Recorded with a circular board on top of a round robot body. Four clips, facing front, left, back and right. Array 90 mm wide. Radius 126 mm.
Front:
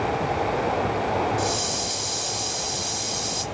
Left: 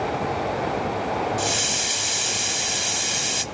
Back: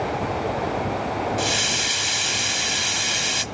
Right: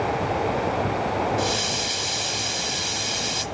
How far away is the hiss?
About 0.9 m.